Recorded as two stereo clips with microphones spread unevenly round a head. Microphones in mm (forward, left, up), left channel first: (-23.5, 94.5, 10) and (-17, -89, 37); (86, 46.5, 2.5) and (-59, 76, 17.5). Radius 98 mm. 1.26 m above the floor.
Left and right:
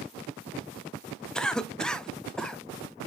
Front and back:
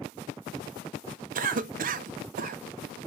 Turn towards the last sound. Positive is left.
turn(degrees=170)